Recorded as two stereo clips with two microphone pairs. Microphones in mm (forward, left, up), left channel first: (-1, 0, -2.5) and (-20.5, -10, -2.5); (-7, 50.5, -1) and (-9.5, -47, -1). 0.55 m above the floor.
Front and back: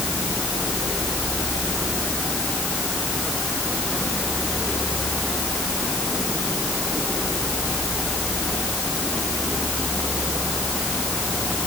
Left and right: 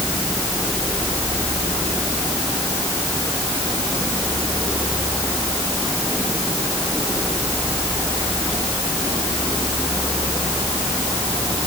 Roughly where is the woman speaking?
I don't hear a woman speaking.